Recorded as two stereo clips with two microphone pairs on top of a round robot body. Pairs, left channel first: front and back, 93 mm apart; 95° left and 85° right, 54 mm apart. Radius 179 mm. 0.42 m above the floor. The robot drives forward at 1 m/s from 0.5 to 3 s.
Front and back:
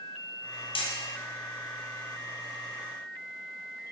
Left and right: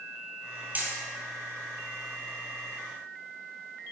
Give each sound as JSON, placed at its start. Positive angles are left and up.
{"t": 0.8, "sound": "hammering", "azimuth_deg": -25, "distance_m": 2.0}